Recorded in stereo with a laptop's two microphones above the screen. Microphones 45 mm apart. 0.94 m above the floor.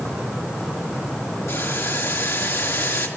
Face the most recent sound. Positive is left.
turn(degrees=85)